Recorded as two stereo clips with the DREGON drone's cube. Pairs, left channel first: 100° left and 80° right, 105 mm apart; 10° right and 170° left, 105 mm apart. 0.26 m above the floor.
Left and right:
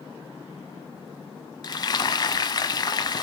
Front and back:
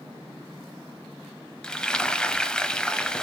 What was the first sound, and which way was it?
Frying, 70° left.